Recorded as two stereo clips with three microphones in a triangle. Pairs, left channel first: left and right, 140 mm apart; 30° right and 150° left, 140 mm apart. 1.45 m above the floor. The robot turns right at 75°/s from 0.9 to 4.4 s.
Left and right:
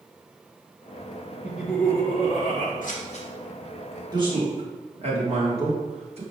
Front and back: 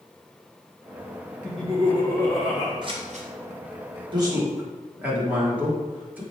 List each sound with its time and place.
1.4 s laughter: 15° right, 1.6 m; by 2.7 s 85° left, 1.6 m
2.8 s scissors: 95° left, 0.8 m; by 3.3 s 130° left, 0.8 m
4.1 s a man speaking: 155° right, 1.4 m; by 6.2 s 130° right, 1.4 m